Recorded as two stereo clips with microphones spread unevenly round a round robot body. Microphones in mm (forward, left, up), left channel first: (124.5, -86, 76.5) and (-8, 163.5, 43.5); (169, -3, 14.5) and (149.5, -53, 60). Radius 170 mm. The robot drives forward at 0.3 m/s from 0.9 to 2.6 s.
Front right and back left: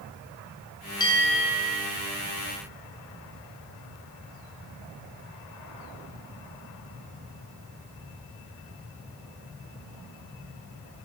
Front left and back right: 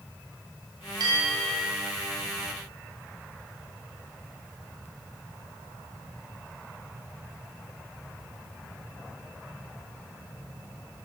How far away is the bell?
About 0.8 m.